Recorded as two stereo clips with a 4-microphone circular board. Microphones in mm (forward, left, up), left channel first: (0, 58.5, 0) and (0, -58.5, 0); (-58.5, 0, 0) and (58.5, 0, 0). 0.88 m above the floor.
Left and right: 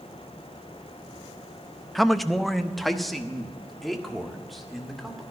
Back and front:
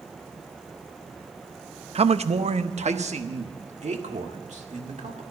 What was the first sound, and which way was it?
A man speaking, straight ahead.